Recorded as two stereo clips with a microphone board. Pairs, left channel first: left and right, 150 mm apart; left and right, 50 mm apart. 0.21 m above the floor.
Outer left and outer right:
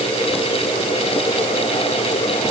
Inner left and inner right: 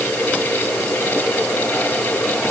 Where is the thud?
I don't hear a thud.